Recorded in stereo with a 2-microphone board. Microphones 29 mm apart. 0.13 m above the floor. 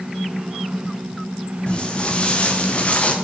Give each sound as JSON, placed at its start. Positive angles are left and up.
{"t": 1.7, "sound": "footsteps", "side_deg": 35, "distance_m": 3.5}